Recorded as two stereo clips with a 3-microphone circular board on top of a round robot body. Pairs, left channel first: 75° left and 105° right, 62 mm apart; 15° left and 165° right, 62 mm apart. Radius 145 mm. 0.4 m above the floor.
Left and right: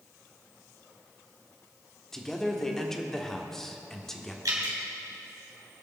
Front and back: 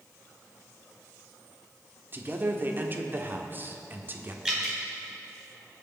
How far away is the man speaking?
About 1.7 m.